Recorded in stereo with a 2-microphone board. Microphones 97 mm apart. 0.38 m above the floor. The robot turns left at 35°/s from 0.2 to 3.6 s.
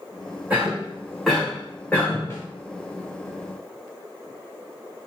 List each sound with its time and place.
0.5 s a cough: 15° right (ahead or behind), 1.3 m; by 2.3 s 20° left (ahead or behind), 1.3 m
2.3 s a snare drum: 30° left (ahead or behind), 1.3 m